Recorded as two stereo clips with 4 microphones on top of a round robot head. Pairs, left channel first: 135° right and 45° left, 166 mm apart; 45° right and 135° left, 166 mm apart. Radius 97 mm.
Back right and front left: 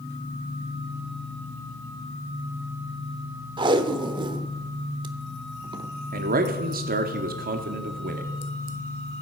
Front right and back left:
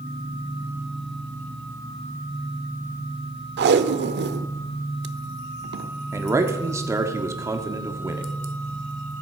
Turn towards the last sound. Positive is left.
turn(degrees=60)